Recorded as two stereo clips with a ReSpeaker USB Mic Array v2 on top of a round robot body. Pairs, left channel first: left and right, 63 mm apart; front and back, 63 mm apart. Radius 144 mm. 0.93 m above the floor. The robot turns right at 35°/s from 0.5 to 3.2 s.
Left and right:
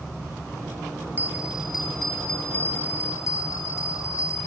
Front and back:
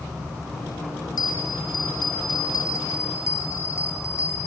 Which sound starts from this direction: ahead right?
A bell, at 1.2 s.